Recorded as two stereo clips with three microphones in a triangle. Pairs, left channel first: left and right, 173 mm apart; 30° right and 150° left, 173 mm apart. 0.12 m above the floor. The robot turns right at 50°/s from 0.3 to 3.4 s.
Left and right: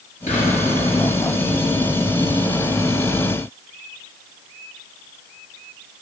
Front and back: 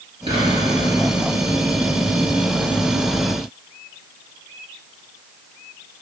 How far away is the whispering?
About 1.5 m.